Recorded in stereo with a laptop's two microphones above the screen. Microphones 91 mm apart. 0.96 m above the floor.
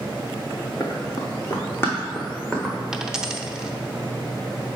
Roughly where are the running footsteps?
Left.